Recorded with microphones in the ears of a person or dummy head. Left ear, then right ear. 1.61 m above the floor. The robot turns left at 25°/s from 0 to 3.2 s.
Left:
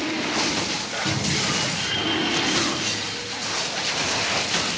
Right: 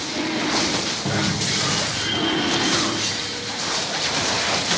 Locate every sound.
1.1 s a cupboard door: 25° right (ahead or behind), 1.6 m; by 1.4 s 35° right (ahead or behind), 1.6 m